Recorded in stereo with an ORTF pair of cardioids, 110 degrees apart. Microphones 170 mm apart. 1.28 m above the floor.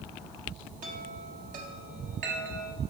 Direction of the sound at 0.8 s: 55° right.